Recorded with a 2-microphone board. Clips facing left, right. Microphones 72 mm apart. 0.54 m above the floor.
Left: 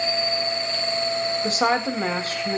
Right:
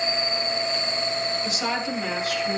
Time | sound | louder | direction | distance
1.4 | a woman speaking | left 5 dB | 45° left (ahead or behind) | 2.5 m